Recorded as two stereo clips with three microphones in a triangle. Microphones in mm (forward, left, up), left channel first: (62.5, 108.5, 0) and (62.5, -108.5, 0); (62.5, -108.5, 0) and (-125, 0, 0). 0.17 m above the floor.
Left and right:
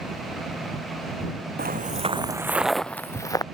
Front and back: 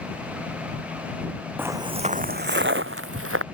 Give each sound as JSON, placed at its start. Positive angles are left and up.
{"t": 1.6, "sound": "footsteps", "azimuth_deg": -130}